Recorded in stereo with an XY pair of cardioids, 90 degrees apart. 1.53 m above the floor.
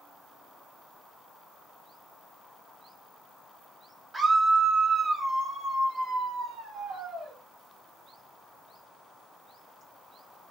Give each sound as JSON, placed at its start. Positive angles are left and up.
{"t": 4.1, "sound": "a scream", "azimuth_deg": -35, "distance_m": 1.4}